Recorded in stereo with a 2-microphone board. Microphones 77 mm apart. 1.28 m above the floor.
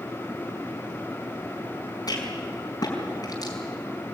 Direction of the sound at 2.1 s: 55° left (ahead or behind).